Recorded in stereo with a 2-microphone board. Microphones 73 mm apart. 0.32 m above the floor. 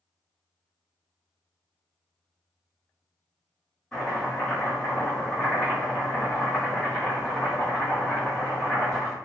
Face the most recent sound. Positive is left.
turn(degrees=10)  # may be behind; listen again after turning